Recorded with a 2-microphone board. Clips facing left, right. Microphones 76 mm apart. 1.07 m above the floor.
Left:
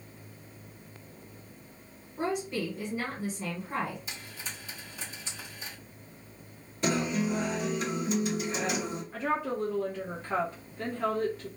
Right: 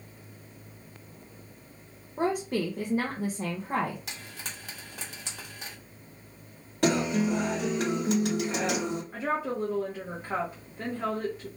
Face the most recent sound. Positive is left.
turn(degrees=-15)  # may be behind; listen again after turning